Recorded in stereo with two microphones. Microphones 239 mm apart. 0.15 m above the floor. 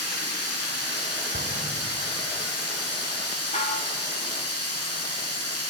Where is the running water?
80° left, 8.5 m.